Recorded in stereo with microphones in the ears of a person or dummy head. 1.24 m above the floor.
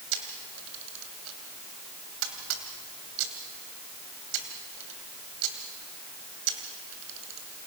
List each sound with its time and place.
0.1 s a camera shutter: 75° right (ahead or behind), 3 m